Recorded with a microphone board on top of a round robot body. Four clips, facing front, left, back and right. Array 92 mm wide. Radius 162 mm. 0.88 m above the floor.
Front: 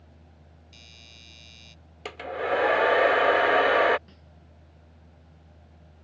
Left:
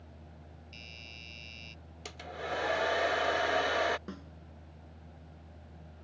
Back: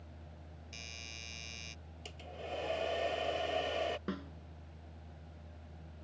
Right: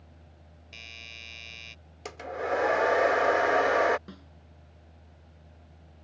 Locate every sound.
0.7 s a doorbell: 110° right
2.0 s a hair dryer: 30° right
4.1 s a snare drum: 165° left